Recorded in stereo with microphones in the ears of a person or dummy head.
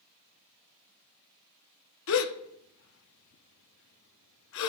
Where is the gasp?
65° left (ahead or behind), 0.6 m.